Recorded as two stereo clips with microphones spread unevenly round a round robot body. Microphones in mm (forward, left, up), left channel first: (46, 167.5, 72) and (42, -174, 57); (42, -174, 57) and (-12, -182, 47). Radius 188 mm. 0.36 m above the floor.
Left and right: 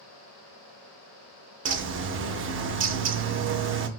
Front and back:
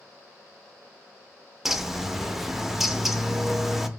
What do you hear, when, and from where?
1.6 s a bird: 105° right, 0.5 m